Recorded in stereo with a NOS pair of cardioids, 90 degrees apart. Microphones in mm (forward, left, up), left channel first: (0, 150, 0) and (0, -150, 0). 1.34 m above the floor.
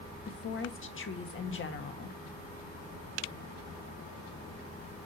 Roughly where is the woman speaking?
Ahead left.